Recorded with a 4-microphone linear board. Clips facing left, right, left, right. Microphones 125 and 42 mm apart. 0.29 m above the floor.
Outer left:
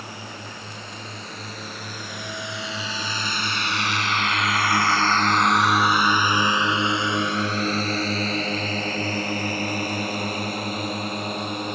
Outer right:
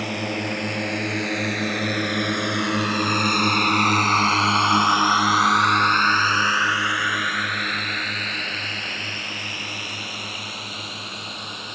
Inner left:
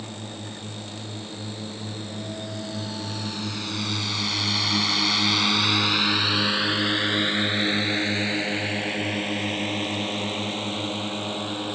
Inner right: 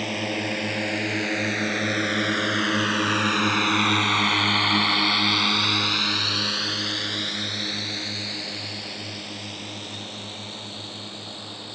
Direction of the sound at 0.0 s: 75° right (ahead or behind).